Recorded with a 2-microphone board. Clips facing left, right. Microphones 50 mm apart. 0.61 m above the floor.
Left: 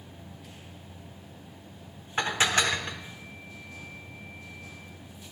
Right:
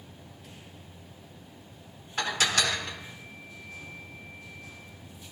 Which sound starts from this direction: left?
Dishes clattering, at 2.2 s.